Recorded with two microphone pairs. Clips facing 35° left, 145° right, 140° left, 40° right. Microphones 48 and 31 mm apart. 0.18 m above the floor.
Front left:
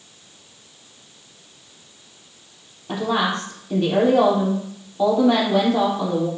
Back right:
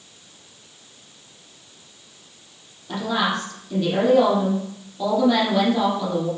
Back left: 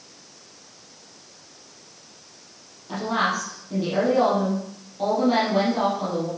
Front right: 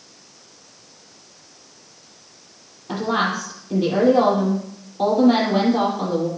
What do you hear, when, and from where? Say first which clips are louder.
2.9 s a woman speaking: front left 1 dB, front right 2 dB; 15° left, 5 m